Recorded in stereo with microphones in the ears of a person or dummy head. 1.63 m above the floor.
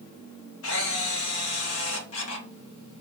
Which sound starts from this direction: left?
A camera shutter, at 0.6 s.